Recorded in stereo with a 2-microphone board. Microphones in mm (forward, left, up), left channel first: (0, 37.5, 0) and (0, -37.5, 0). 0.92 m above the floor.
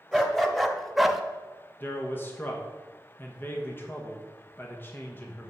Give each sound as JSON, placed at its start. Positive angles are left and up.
{"t": 0.1, "sound": "a dog barking", "side_deg": 0, "distance_m": 1.2}
{"t": 1.8, "sound": "a man speaking", "side_deg": 30, "distance_m": 1.1}